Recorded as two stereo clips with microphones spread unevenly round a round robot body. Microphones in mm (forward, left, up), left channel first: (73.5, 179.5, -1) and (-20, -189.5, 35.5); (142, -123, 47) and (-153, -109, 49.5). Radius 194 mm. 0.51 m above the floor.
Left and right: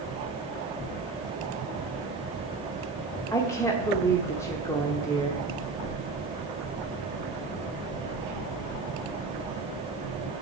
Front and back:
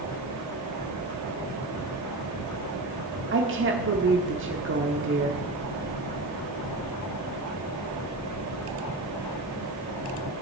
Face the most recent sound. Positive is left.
turn(degrees=150)